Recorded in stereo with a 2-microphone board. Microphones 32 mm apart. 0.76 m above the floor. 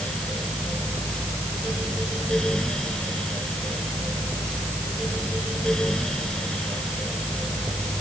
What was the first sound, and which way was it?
Only background noise.